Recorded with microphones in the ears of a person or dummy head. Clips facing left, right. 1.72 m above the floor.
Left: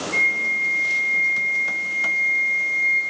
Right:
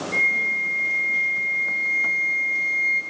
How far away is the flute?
About 2.5 m.